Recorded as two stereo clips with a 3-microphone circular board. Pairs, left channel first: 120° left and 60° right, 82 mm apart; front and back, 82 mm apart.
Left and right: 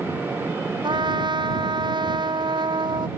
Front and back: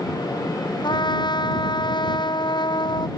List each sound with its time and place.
0.8 s a trumpet: 30° right